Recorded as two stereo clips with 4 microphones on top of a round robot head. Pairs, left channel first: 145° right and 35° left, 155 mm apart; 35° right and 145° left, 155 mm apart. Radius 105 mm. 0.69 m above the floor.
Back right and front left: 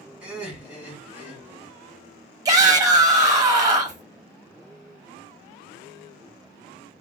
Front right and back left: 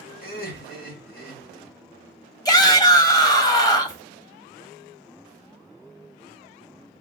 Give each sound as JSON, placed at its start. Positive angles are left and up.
{"t": 0.2, "sound": "laughter", "azimuth_deg": -45, "distance_m": 2.5}
{"t": 2.5, "sound": "a shout", "azimuth_deg": 0, "distance_m": 1.0}